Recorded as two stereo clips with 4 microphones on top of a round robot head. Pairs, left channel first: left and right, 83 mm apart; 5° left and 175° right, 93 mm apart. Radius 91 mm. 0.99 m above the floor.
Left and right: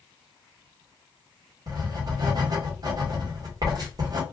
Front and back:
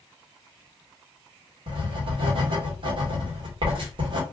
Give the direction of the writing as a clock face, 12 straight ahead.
5 o'clock.